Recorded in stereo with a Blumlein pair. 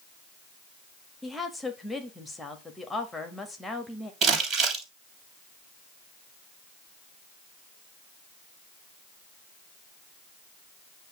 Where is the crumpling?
30° right, 3 m.